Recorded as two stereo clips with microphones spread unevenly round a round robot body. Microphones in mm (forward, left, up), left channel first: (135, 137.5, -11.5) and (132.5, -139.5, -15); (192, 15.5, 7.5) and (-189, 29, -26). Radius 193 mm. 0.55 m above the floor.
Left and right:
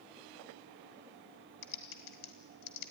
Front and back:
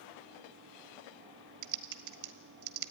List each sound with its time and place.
1.6 s typing on a keyboard: 135° left, 1.3 m